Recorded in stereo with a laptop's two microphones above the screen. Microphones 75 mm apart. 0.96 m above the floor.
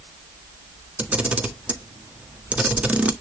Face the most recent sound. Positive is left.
turn(degrees=-15)  # may be behind; listen again after turning